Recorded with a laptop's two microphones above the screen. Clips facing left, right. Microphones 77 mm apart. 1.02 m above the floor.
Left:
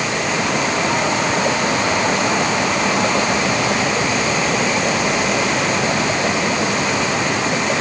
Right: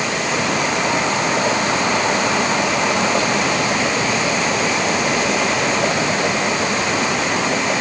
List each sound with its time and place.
Only background noise.